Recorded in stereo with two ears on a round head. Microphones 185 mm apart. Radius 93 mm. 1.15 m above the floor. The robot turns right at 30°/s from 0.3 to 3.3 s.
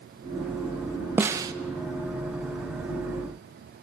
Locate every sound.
1.2 s a snare drum: 10° right (ahead or behind), 0.9 m; by 1.5 s 20° right (ahead or behind), 0.9 m